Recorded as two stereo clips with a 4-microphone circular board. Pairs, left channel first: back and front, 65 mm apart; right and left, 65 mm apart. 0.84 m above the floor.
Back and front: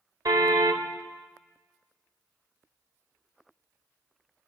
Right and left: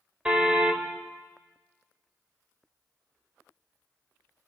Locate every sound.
0.2 s a car horn: 20° left, 2 m